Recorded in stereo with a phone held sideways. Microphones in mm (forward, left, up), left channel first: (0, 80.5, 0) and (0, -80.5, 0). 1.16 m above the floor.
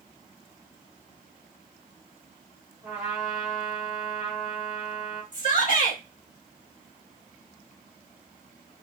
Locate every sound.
2.8 s a trumpet: 15° right (ahead or behind), 1.1 m
5.3 s a shout: 55° left (ahead or behind), 0.9 m